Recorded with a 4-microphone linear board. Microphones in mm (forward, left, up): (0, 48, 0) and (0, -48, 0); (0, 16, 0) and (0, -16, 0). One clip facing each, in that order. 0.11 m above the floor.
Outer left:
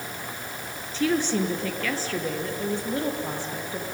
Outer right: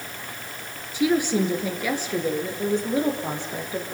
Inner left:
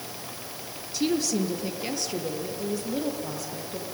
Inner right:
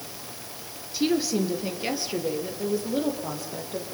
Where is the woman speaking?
10° right (ahead or behind), 2 m; by 3.9 s 20° right (ahead or behind), 4 m.